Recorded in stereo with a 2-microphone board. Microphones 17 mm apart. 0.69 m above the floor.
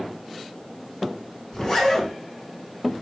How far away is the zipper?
About 5 m.